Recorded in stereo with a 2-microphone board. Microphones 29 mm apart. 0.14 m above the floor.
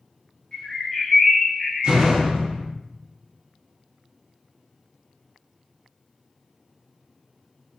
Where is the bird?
20° left (ahead or behind), 0.7 m.